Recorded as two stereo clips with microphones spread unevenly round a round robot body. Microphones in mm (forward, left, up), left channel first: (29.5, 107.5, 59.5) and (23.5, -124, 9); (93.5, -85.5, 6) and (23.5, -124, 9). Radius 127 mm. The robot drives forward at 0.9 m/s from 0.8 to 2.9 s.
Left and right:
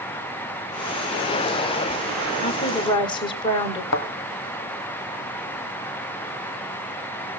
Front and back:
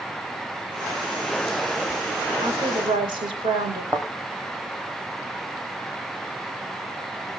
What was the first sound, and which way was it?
A woman speaking, 160° left.